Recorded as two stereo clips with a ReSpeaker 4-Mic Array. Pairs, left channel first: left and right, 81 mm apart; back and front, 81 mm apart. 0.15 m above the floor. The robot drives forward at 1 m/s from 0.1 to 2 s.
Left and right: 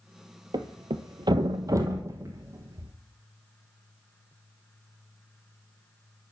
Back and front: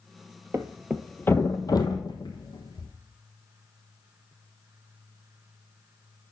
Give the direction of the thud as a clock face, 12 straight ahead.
2 o'clock.